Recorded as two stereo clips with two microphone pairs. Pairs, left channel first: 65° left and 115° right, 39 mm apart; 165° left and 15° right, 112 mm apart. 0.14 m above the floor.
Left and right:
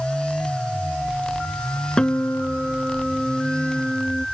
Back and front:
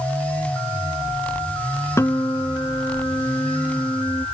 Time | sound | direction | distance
2.0 | a guitar | 115° left | ?